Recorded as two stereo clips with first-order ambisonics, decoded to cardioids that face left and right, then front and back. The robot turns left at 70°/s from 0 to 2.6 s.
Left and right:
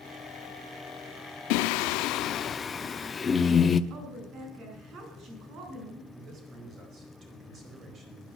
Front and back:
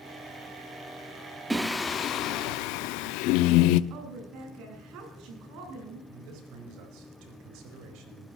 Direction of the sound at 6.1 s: 150° right.